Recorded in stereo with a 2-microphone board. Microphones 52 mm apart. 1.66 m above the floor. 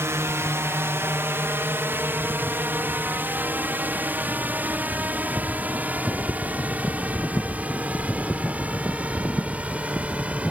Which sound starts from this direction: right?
A drone, at 0.0 s.